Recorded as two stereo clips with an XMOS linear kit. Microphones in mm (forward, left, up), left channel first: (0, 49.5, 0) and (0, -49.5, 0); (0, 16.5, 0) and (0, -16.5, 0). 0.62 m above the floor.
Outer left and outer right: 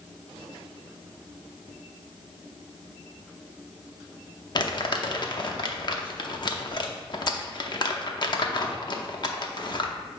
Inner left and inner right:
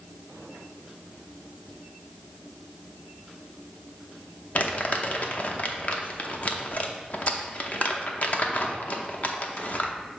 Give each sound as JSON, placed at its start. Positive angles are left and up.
{"t": 4.5, "sound": "crumpling", "side_deg": 50, "distance_m": 0.8}